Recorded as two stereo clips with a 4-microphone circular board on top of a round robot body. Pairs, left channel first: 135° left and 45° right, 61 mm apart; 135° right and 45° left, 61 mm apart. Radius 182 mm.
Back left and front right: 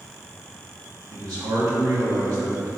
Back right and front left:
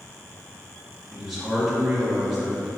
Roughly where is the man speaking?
Ahead right.